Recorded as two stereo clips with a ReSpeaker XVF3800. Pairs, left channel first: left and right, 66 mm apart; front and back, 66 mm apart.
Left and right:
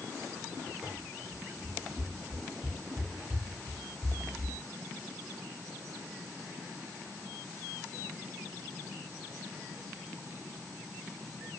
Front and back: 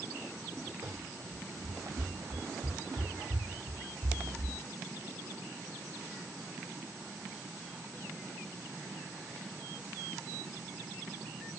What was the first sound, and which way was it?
Running footsteps, 170° right.